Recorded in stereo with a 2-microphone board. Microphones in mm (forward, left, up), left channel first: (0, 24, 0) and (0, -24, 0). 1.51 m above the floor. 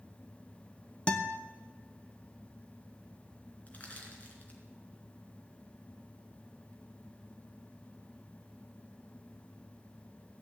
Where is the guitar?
20° left (ahead or behind), 0.9 m.